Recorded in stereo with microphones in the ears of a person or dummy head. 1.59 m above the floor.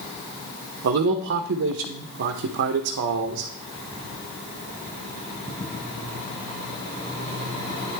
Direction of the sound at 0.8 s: 60° right (ahead or behind).